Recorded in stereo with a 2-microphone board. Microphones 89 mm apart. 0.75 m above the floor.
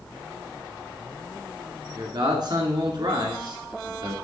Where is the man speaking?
55° right (ahead or behind), 1.9 m.